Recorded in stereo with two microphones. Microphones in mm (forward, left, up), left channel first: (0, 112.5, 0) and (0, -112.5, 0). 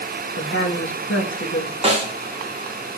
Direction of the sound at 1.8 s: 25° right (ahead or behind).